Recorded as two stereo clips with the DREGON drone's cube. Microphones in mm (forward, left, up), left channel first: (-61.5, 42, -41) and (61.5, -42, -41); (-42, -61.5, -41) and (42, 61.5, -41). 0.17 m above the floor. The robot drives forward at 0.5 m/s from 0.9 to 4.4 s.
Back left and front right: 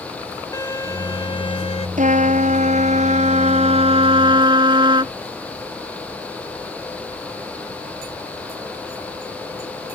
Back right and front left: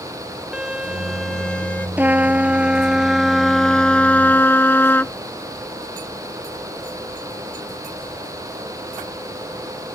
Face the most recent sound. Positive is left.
turn(degrees=-60)